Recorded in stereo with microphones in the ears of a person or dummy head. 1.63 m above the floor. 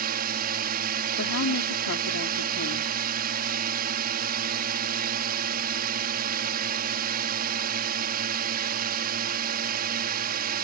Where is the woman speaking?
70° left (ahead or behind).